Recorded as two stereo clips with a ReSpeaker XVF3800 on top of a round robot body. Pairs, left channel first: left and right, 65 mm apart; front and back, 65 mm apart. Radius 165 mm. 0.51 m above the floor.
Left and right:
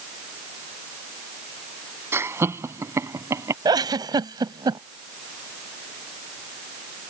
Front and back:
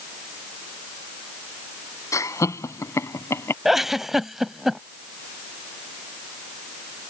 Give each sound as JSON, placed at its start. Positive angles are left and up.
{"t": 2.1, "sound": "laughter", "azimuth_deg": -40}
{"t": 3.6, "sound": "a giggle", "azimuth_deg": -95}